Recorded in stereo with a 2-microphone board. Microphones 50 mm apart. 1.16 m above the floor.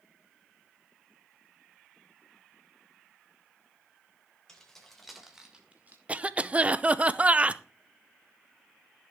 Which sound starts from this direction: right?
A cough, at 6.1 s.